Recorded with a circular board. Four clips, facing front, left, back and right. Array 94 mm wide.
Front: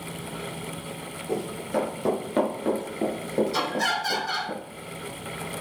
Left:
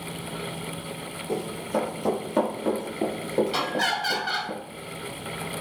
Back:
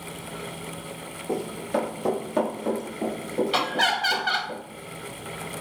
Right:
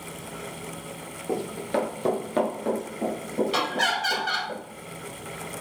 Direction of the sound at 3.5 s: 165° right.